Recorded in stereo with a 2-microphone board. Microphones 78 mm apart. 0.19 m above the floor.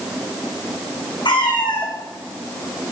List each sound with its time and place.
1.2 s a cat meowing: 80° left, 1.7 m